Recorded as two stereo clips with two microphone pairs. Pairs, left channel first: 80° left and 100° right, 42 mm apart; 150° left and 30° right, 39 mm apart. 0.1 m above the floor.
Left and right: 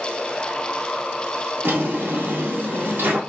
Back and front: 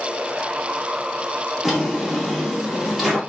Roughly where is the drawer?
Behind right.